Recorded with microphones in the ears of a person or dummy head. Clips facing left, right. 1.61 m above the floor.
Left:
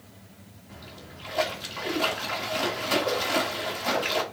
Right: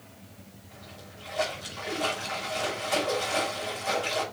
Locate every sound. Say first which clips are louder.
0.7 s a splash: left 4 dB; 65° left (ahead or behind), 2 m